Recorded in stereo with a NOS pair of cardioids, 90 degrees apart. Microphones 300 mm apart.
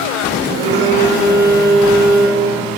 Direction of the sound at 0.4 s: 35° right.